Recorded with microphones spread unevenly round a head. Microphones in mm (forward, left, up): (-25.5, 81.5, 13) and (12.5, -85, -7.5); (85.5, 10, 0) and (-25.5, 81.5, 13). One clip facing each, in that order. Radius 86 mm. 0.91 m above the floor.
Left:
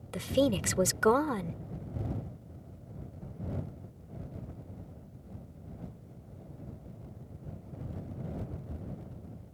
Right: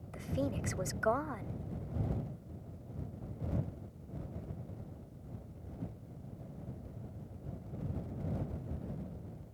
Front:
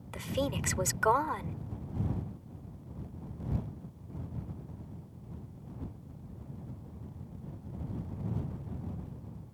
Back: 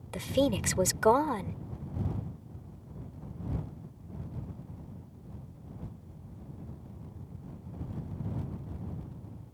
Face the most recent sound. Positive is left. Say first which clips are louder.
# left 9 dB, back 6 dB
turn(degrees=90)